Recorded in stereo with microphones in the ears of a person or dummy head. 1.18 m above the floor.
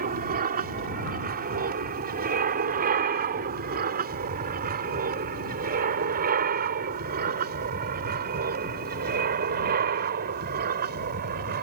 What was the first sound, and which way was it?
An aircraft, 40° right (ahead or behind).